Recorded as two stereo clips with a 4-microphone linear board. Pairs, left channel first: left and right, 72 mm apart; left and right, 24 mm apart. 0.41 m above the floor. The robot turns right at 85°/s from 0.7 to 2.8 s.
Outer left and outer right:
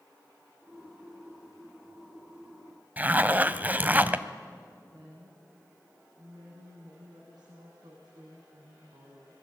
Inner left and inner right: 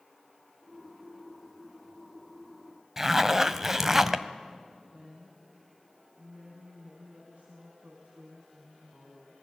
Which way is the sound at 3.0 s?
20° right (ahead or behind).